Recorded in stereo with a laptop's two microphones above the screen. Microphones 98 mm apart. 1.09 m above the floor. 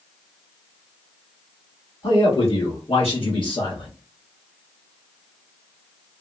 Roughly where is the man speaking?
Left.